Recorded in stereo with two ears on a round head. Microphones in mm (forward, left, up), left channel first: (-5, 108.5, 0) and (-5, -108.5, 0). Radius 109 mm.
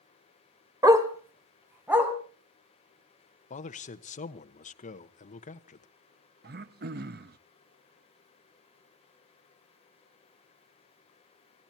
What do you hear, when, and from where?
0.8 s a dog barking: 15° right (ahead or behind), 1.5 m; by 2.1 s 5° right (ahead or behind), 3 m
3.5 s a man speaking: 30° left (ahead or behind), 1.1 m
6.4 s throat clearing: 40° right (ahead or behind), 0.7 m